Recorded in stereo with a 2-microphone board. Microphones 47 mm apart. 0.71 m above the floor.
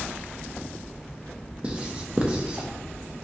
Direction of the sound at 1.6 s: 25° right (ahead or behind).